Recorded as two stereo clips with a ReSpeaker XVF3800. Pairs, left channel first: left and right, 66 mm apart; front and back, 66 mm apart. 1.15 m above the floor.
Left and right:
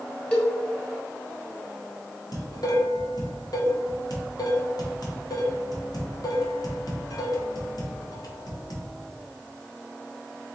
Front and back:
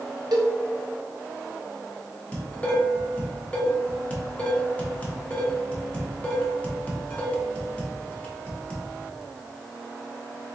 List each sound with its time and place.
0.3 s a cowbell: 165° left, 1.1 m
2.3 s dishes clattering: 70° left, 1.2 m